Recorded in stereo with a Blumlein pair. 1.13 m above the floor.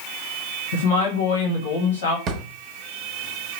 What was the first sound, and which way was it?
A woman speaking, 65° left.